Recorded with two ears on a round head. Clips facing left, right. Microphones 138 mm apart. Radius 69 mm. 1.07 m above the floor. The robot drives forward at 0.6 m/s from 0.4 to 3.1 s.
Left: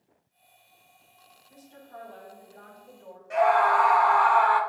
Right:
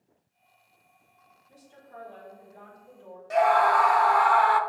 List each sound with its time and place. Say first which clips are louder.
1.5 s a woman speaking: left 2 dB; 30° right (ahead or behind), 3 m; by 3.2 s 20° right (ahead or behind), 3.5 m
3.3 s a scream: even; 45° right (ahead or behind), 0.7 m